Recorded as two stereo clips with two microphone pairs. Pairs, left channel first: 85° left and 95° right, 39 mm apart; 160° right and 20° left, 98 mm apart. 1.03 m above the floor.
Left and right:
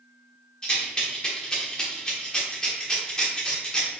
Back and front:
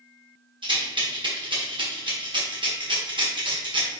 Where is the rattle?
25° left, 1.1 m.